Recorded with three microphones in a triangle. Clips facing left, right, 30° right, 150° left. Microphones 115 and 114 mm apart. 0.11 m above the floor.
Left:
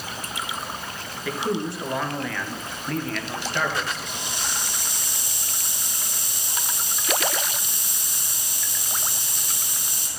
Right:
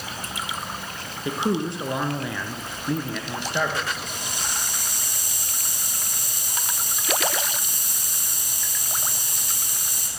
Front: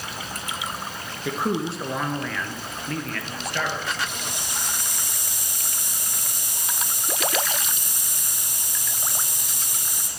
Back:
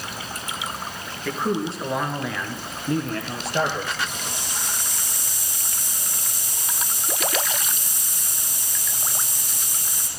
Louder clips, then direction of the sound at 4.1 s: Even, back 1 dB; 50° right.